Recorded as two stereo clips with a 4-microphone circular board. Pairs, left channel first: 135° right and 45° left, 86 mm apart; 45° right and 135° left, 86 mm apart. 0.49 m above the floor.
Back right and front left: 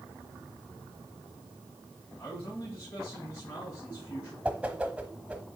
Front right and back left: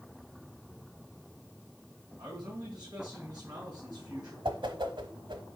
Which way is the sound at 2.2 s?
175° left.